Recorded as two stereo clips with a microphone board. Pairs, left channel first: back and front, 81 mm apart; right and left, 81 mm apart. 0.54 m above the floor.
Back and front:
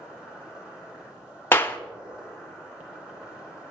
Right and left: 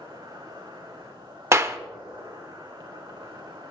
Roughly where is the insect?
Left.